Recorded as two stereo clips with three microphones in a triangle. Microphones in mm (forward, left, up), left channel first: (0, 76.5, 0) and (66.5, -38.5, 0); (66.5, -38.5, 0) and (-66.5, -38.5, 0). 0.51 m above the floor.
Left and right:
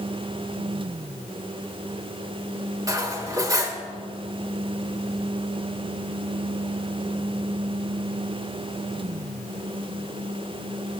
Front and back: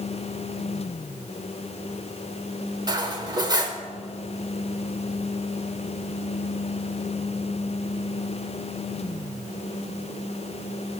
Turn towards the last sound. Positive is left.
turn(degrees=-120)